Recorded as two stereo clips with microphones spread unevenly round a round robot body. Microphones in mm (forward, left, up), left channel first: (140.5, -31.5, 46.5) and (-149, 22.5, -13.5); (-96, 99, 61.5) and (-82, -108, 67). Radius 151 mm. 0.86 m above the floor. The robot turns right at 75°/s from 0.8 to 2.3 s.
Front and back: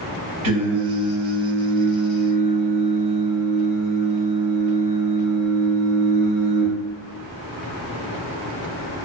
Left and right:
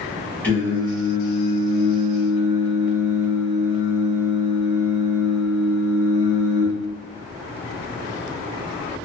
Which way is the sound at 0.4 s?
175° left.